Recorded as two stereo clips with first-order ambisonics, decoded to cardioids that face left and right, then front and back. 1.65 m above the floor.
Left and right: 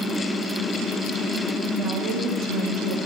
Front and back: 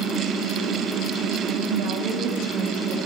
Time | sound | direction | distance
1.7 | a woman speaking | 155° right | 0.9 m